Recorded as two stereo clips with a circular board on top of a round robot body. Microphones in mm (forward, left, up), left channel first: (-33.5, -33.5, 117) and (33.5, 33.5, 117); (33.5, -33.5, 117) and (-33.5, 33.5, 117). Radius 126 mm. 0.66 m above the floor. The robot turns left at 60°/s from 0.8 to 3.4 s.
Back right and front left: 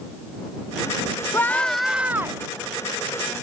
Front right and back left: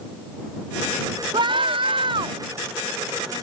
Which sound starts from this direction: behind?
A scream, at 1.3 s.